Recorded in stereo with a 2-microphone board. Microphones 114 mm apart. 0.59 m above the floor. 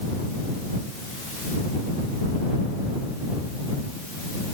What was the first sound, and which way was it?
Only background noise.